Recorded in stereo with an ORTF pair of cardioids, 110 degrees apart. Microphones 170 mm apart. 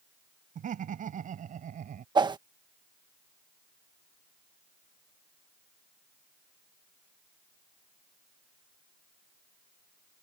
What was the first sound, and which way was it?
Laughter, 50° right.